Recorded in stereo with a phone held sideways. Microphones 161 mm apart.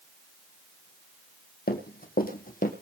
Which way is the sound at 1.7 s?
65° left (ahead or behind).